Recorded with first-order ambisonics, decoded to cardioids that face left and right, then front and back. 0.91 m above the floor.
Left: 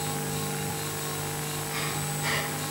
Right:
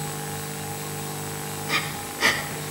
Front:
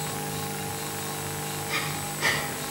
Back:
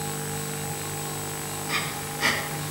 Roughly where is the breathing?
Right.